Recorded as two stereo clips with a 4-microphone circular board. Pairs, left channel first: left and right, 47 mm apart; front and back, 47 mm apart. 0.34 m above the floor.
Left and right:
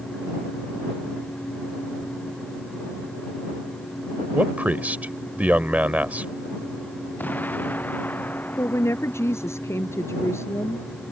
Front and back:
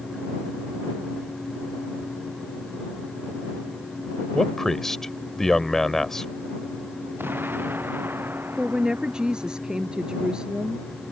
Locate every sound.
4.3 s a man speaking: 75° right
7.2 s an explosion: 140° left
8.6 s a woman speaking: 110° left